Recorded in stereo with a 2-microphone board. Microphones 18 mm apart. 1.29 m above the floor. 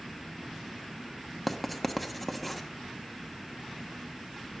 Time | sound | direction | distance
1.5 | writing | 5° right (ahead or behind) | 1.2 m